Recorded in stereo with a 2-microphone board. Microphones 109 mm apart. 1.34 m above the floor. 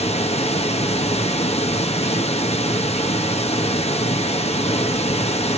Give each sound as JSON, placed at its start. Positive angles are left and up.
{"t": 0.0, "sound": "running water", "side_deg": 75, "distance_m": 1.2}